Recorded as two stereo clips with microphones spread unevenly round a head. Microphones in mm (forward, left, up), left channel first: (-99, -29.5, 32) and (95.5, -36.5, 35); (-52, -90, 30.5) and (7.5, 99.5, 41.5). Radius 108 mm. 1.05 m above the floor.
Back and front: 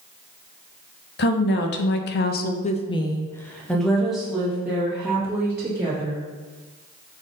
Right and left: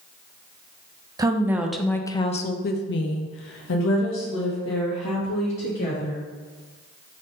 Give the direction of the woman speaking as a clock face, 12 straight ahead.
7 o'clock.